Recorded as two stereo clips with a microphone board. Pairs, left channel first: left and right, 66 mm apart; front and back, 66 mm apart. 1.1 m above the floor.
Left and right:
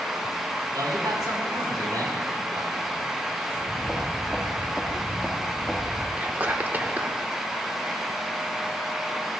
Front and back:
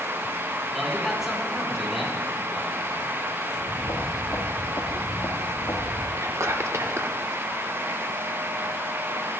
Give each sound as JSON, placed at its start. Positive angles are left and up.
{"t": 0.7, "sound": "a man speaking", "azimuth_deg": -90, "distance_m": 4.0}
{"t": 3.5, "sound": "footsteps", "azimuth_deg": -10, "distance_m": 5.0}
{"t": 6.2, "sound": "whispering", "azimuth_deg": -145, "distance_m": 1.0}